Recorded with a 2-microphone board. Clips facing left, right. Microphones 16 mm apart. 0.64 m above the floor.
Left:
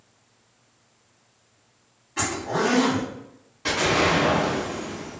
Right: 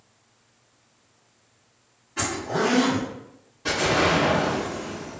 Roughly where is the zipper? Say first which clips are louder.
Even; centre.